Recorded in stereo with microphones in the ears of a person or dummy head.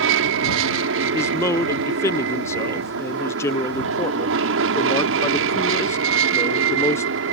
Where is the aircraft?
65° right (ahead or behind).